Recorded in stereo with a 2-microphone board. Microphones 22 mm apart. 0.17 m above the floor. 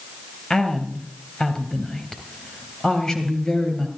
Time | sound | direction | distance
0.5 | a woman speaking | 25° left (ahead or behind) | 3 m